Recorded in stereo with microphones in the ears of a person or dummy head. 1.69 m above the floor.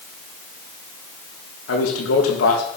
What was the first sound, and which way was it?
A man speaking, 85° left.